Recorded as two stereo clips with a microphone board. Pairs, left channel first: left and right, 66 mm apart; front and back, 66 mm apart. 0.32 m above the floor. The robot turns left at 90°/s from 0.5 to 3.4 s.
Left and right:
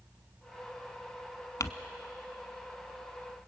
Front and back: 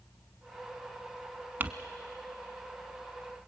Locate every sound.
1.6 s crumpling: 120° left, 0.9 m; by 1.7 s 110° left, 0.9 m